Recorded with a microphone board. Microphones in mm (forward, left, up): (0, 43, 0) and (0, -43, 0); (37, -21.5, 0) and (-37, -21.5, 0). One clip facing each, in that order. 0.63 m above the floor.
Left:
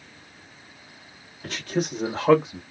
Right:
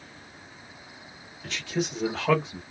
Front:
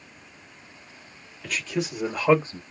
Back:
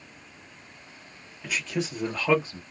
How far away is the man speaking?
About 1.1 m.